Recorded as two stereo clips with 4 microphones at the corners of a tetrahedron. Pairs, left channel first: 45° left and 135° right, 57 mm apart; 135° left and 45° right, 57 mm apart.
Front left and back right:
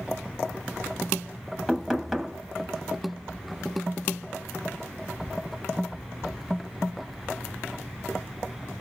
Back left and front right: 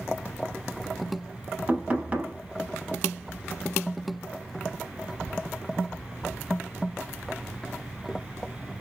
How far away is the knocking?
About 0.7 m.